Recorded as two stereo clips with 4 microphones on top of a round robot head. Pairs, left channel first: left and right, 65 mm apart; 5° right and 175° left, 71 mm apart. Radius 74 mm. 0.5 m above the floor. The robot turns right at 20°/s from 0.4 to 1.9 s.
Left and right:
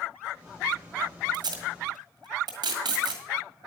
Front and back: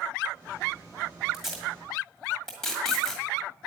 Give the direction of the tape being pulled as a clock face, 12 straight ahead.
3 o'clock.